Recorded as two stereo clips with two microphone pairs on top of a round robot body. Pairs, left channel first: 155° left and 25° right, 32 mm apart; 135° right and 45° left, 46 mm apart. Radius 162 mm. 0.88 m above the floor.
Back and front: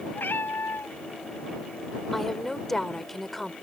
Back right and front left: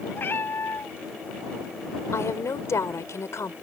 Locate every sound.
0.1 s a cat meowing: 170° left
2.1 s a woman speaking: 120° right